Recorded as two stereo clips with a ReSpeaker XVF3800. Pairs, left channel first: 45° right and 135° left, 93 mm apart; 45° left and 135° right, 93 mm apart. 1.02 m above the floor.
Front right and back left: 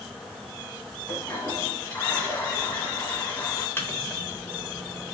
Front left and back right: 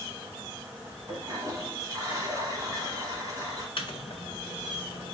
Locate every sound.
1.1 s a toilet flushing: 105° right, 1.2 m
3.8 s a microwave: 20° left, 0.6 m